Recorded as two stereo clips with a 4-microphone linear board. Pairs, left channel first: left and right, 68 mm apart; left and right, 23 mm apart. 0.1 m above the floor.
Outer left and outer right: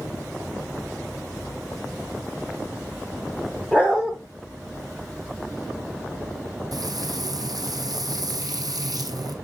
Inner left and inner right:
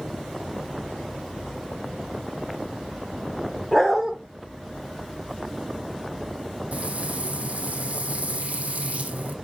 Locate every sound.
3.7 s a dog barking: 20° right (ahead or behind), 3 m
6.7 s frying: 75° right (ahead or behind), 1.2 m